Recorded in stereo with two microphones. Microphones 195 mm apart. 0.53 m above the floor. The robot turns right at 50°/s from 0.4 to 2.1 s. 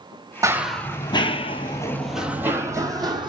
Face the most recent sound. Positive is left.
turn(degrees=-20)  # may be behind; listen again after turning